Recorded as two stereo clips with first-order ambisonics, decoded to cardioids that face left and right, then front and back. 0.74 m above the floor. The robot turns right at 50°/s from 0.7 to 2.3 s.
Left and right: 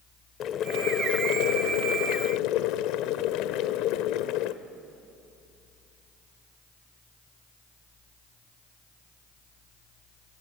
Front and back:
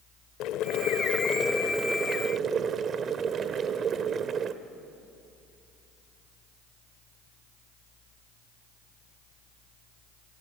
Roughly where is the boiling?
Ahead left.